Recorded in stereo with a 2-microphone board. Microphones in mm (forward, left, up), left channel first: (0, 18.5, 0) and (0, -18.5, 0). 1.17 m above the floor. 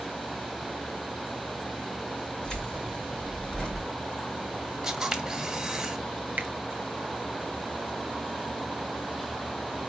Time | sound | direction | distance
2.4 | keys jangling | 20° left (ahead or behind) | 3.5 m
4.8 | a camera shutter | 10° right (ahead or behind) | 1.2 m
6.4 | a finger snap | 55° right (ahead or behind) | 0.6 m